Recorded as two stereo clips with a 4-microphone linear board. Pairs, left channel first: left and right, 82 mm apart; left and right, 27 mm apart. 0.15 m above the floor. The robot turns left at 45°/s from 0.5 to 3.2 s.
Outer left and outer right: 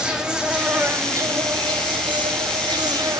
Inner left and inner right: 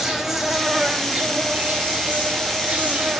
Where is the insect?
10° right, 0.8 m; by 3.2 s 130° right, 0.8 m.